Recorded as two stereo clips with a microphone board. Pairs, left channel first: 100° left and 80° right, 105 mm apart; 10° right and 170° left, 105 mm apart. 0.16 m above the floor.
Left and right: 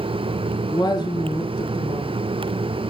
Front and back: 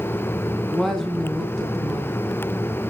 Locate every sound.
0.7 s a woman speaking: 75° left, 2 m